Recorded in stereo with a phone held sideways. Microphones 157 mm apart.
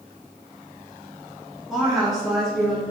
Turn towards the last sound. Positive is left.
turn(degrees=0)  # may be behind; listen again after turning